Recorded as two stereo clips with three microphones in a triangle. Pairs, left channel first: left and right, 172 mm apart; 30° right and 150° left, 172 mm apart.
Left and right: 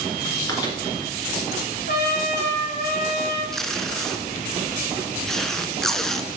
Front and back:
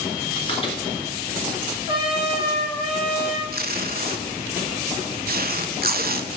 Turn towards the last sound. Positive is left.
turn(degrees=180)